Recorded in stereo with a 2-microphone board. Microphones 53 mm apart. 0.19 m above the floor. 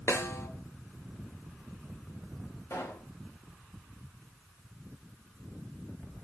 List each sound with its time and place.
0.1 s a snare drum: 65° left (ahead or behind), 3 m
2.7 s a pop: 65° left (ahead or behind), 6.5 m